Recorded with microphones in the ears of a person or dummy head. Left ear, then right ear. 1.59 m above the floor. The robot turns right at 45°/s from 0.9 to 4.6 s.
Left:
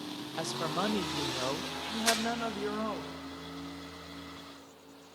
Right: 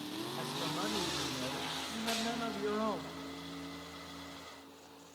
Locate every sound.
0.4 s a woman speaking: 100° left, 0.7 m; by 3.1 s 165° right, 0.7 m
2.1 s crumpling: 60° left (ahead or behind), 1.6 m; by 2.2 s 55° left (ahead or behind), 1.6 m